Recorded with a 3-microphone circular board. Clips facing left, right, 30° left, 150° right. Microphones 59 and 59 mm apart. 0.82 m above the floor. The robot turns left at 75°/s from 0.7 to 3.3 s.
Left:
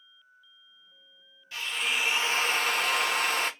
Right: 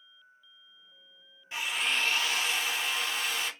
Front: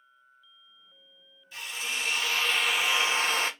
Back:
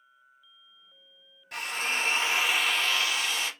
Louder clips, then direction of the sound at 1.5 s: Even, back 4 dB; 155° right.